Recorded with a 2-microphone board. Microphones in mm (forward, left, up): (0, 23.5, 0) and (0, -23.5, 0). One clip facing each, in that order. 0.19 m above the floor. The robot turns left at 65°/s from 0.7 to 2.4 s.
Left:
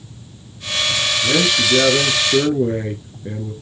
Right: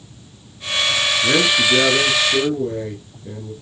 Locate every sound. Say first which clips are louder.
1.2 s a man speaking: right 1 dB; 150° right, 2.5 m; by 3.5 s 135° left, 2.5 m